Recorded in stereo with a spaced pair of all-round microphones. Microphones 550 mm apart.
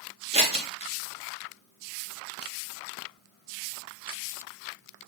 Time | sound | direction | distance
0.3 | scissors | 10° right (ahead or behind) | 0.5 m